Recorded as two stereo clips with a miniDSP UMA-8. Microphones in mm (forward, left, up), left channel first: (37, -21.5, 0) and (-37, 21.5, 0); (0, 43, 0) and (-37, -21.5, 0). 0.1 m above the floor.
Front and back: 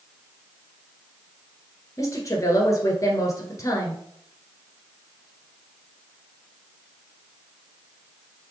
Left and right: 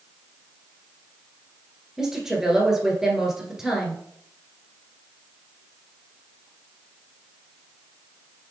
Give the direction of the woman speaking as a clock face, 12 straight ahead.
1 o'clock.